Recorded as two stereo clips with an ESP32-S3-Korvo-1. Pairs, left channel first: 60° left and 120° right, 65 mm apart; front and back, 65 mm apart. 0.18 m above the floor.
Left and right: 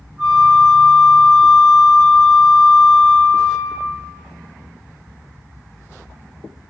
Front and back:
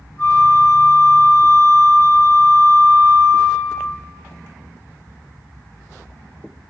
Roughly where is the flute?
Ahead right.